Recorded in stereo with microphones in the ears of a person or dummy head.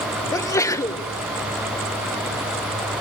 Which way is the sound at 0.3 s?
15° left (ahead or behind).